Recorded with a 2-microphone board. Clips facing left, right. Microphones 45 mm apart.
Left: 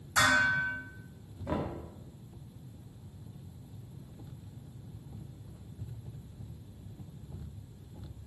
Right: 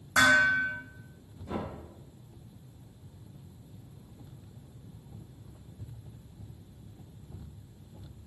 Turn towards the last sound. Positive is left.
turn(degrees=55)  # may be behind; listen again after turning